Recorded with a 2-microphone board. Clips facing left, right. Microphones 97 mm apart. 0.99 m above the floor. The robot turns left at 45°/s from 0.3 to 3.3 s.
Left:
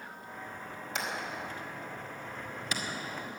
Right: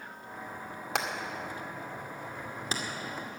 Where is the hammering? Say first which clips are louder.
Right 3 dB; 70° right (ahead or behind), 2 m; by 2.8 s 25° right (ahead or behind), 2 m.